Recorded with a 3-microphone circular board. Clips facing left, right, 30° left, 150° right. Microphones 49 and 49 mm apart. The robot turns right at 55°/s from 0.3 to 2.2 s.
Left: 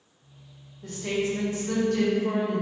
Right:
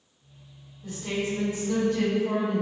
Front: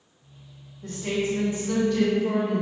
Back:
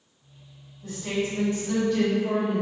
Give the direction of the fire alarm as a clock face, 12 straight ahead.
I don't hear a fire alarm.